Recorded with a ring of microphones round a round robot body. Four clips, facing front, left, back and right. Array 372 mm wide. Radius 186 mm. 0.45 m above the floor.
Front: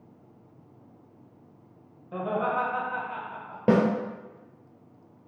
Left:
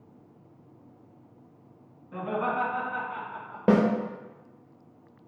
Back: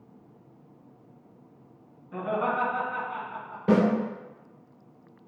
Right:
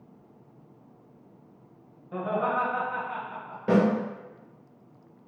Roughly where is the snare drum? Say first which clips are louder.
Left 1 dB, even; ahead left.